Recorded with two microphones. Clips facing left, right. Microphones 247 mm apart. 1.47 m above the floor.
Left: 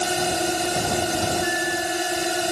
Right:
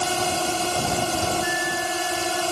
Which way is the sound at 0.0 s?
15° left (ahead or behind).